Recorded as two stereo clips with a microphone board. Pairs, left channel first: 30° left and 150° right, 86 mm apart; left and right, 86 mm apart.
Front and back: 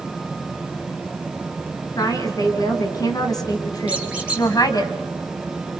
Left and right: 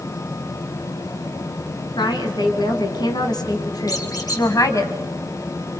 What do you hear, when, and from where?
2.0 s a woman speaking: 70° left, 3 m; by 4.9 s 55° left, 1.7 m
3.9 s a squeak: 135° left, 3 m